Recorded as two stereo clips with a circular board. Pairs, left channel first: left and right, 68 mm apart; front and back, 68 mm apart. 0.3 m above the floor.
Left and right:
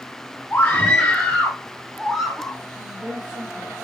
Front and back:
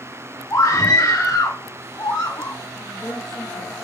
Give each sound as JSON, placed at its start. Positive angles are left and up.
{"t": 0.5, "sound": "a scream", "azimuth_deg": 25, "distance_m": 2.5}
{"t": 2.8, "sound": "a woman speaking", "azimuth_deg": -85, "distance_m": 5.5}